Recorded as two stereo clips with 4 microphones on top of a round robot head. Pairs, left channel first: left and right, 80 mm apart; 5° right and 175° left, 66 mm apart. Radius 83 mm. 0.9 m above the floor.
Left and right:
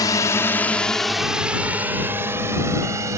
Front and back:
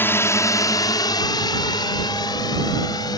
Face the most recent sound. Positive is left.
turn(degrees=-35)